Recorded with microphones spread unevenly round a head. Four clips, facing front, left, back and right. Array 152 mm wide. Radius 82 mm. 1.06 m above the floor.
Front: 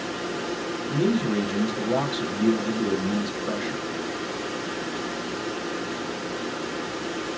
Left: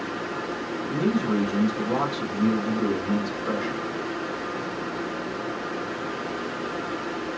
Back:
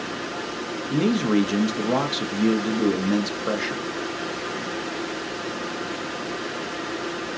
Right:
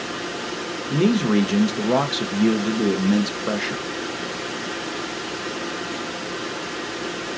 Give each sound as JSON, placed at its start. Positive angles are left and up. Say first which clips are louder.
{"t": 0.9, "sound": "a man speaking", "louder": "right 5 dB, back 3 dB", "azimuth_deg": -120, "distance_m": 0.8}